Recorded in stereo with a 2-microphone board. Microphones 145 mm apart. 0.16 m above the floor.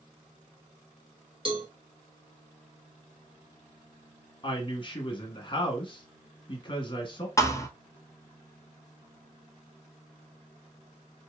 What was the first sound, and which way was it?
A cowbell, 35° right (ahead or behind).